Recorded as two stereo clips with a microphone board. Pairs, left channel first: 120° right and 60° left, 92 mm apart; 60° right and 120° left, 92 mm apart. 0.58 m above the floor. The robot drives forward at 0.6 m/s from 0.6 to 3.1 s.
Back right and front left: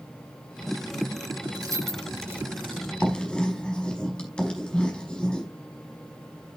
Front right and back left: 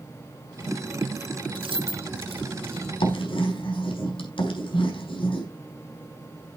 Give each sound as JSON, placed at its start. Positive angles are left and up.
{"t": 1.6, "sound": "keys jangling", "azimuth_deg": 105, "distance_m": 1.5}
{"t": 3.0, "sound": "writing", "azimuth_deg": -40, "distance_m": 5.0}